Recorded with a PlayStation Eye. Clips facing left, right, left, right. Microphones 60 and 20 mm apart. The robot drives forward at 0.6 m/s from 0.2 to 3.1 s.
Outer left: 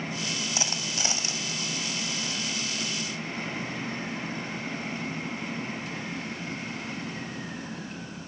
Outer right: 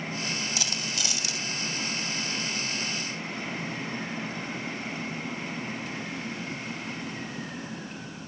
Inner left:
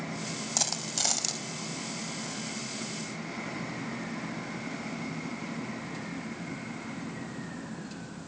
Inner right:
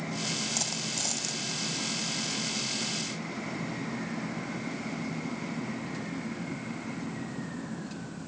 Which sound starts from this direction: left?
A dropped coin, at 0.6 s.